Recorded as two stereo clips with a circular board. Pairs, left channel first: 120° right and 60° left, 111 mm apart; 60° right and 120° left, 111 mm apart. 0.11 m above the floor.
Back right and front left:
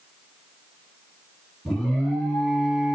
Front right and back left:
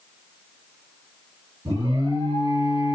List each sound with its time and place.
1.6 s an alarm: 160° left, 2.5 m